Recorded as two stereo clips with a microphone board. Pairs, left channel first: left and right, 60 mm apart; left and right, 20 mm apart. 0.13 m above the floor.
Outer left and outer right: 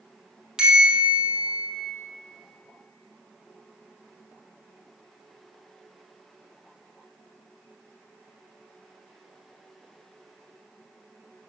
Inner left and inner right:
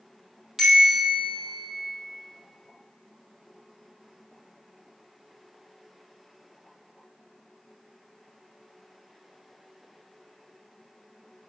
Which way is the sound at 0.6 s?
15° right (ahead or behind).